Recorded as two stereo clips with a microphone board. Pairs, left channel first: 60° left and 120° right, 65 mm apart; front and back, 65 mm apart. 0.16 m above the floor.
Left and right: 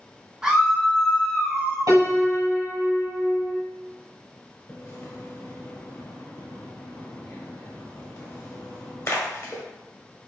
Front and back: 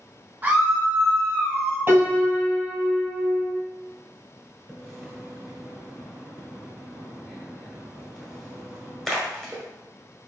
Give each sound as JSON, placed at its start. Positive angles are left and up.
{"t": 0.4, "sound": "a scream", "azimuth_deg": 175, "distance_m": 1.3}
{"t": 1.9, "sound": "a piano", "azimuth_deg": -125, "distance_m": 1.3}
{"t": 4.7, "sound": "a splash", "azimuth_deg": 85, "distance_m": 1.1}